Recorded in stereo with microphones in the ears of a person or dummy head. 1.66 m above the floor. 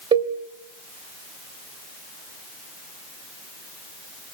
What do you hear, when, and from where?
0.1 s a cowbell: 25° right (ahead or behind), 2 m